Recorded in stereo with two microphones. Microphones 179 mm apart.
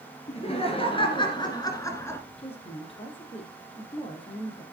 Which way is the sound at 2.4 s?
35° left (ahead or behind).